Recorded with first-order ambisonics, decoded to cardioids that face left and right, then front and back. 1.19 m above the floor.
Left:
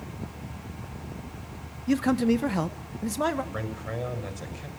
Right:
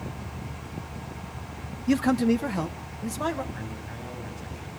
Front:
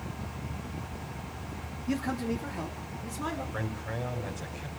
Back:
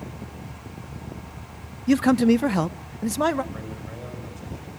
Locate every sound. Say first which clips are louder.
1.9 s a man speaking: right 1 dB, back 13 dB; 160° right, 0.6 m; by 3.4 s 165° left, 1.5 m
3.5 s a man speaking: left 5 dB, front 2 dB; 75° left, 6 m